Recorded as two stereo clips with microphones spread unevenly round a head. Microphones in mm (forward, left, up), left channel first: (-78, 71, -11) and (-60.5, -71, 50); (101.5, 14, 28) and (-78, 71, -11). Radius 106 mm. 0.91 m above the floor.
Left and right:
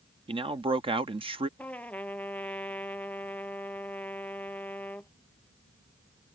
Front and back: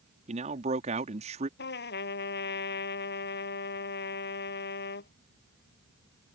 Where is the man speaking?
145° right.